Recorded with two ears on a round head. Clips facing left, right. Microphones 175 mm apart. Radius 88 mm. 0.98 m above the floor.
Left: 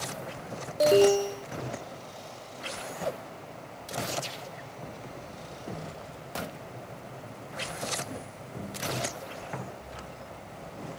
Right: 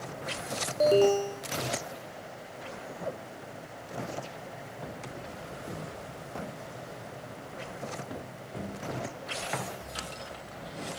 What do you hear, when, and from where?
0.8 s an alarm: 10° left (ahead or behind)